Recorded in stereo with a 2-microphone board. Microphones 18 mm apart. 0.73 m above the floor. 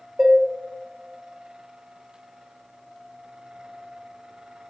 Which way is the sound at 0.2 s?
35° right (ahead or behind).